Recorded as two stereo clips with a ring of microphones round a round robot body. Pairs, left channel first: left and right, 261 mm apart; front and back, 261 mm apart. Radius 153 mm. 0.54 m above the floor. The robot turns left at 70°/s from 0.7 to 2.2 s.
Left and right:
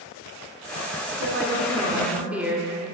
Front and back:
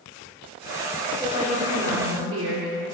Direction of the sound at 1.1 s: 95° right.